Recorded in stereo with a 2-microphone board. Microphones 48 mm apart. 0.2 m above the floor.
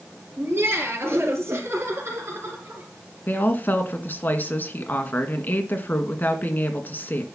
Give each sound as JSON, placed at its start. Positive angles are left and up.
{"t": 0.4, "sound": "laughter", "side_deg": -55, "distance_m": 3.5}
{"t": 3.3, "sound": "a woman speaking", "side_deg": 40, "distance_m": 1.9}